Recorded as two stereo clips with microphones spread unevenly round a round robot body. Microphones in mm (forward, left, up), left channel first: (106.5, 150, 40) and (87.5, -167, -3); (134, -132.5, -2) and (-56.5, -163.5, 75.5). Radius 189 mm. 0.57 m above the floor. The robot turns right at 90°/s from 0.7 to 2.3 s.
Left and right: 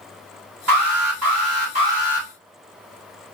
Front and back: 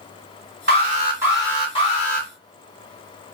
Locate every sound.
0.7 s an alarm: 130° right, 2.5 m; by 2.3 s 15° left, 2.5 m